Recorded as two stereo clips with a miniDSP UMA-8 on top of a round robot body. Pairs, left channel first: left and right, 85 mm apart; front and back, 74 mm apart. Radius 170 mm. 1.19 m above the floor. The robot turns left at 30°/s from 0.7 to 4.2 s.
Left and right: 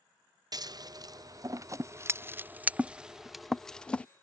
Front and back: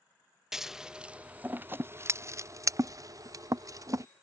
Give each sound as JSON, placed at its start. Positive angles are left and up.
{"t": 0.5, "sound": "scissors", "azimuth_deg": -100}